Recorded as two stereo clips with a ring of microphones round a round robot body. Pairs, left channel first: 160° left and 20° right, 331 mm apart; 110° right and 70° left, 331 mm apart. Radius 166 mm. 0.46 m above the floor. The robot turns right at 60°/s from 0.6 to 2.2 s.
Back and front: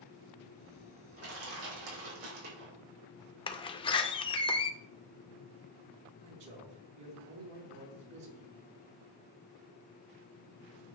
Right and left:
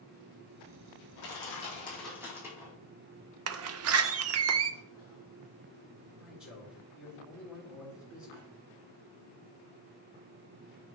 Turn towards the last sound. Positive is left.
turn(degrees=-20)